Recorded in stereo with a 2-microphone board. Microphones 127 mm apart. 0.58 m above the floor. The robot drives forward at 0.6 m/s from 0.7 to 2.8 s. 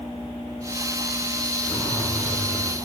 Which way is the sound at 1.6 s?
25° left (ahead or behind).